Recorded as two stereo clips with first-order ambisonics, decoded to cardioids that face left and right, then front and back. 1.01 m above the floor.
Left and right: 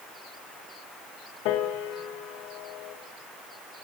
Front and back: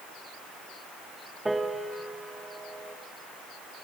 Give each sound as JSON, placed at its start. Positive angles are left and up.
{"t": 1.4, "sound": "a piano", "azimuth_deg": 95, "distance_m": 0.7}